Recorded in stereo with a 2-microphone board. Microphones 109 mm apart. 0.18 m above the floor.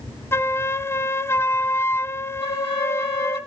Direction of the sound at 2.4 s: 45° left (ahead or behind).